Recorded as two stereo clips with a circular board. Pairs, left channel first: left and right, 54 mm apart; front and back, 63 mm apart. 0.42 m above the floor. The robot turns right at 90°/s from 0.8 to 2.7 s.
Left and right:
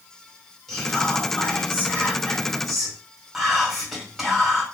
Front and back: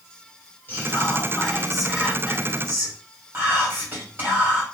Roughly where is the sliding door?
No sliding door in this recording.